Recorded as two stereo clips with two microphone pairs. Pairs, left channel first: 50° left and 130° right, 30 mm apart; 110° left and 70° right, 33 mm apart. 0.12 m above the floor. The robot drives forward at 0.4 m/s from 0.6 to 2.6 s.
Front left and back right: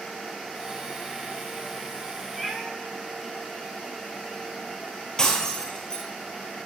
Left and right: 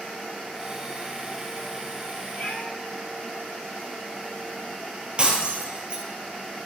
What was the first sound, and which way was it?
A cat meowing, 145° left.